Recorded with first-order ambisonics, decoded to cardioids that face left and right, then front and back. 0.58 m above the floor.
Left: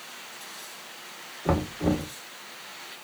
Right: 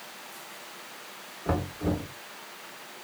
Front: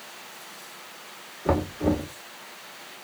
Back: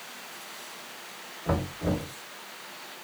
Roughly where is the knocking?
Ahead left.